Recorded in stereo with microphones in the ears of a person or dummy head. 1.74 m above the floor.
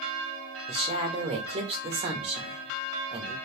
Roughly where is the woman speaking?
Right.